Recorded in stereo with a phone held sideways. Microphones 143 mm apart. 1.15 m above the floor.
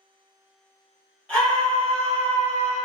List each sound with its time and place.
1.3 s a scream: 15° right (ahead or behind), 1.1 m